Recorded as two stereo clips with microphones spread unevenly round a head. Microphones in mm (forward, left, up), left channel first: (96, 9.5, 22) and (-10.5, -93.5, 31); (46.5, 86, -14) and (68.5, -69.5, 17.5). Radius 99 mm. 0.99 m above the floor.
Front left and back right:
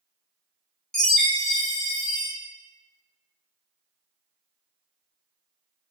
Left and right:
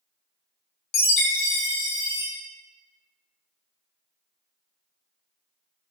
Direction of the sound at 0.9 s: 135° left.